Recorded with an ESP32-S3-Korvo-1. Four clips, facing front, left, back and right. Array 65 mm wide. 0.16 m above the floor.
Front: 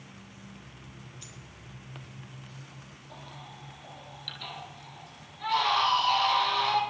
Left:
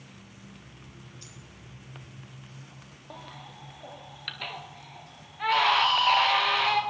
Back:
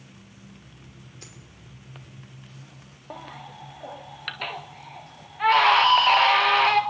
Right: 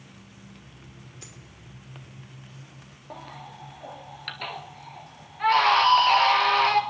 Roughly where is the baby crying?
Behind.